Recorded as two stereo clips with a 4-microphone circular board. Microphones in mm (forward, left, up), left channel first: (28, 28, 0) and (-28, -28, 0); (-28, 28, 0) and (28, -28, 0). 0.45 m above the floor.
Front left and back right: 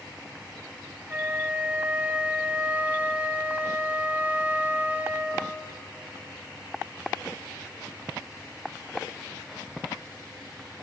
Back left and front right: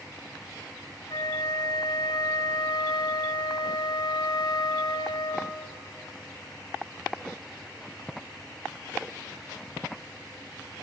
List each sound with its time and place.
1.1 s a flute: 155° left, 1.7 m